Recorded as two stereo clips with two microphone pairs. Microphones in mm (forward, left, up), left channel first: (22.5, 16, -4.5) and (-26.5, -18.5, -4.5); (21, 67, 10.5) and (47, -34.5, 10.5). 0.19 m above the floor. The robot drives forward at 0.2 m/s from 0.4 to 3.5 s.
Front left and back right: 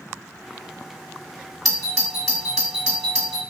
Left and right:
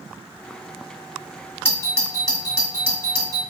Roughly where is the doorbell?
Behind left.